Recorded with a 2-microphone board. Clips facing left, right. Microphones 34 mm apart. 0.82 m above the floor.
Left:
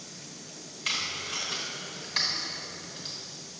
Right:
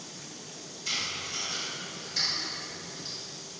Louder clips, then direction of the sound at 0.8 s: Left 2 dB; 55° left (ahead or behind).